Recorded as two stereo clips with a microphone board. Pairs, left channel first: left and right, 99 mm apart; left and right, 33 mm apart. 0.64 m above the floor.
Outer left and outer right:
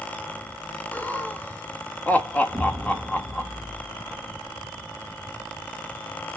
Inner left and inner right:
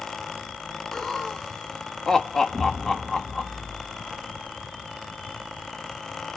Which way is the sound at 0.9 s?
15° left (ahead or behind).